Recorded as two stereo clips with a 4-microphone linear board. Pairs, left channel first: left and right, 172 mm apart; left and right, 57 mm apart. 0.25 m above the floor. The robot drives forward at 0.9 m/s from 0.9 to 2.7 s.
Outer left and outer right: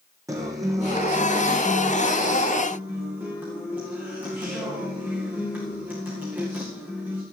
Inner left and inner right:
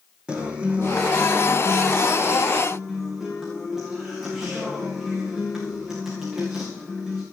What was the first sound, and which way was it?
A guitar, 20° right (ahead or behind).